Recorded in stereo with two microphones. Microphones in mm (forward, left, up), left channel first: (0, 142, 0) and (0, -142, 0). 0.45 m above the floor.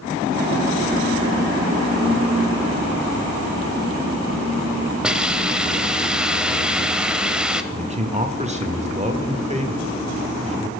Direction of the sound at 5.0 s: 5° right (ahead or behind).